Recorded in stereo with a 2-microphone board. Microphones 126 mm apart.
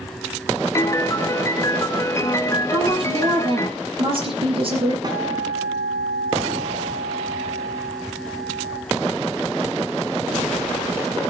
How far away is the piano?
About 1.0 m.